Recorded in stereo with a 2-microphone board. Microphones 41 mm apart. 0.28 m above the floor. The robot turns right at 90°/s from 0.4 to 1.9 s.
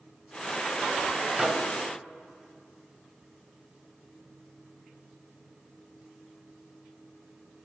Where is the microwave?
10° right (ahead or behind), 0.9 m; by 1.7 s 10° left (ahead or behind), 0.9 m.